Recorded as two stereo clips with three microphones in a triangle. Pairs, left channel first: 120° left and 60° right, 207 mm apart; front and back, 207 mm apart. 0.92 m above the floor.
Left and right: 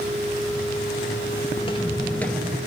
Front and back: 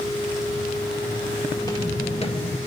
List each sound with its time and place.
1.6 s footsteps: 65° left, 1.3 m; by 2.6 s 20° left, 1.1 m